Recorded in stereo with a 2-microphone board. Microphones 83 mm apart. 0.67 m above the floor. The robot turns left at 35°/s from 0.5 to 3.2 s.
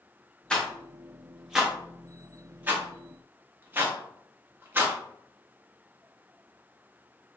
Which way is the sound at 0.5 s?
10° left (ahead or behind).